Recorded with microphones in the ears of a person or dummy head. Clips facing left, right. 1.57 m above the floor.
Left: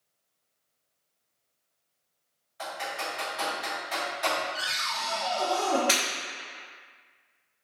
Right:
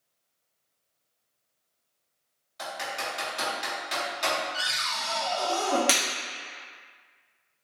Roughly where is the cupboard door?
Right.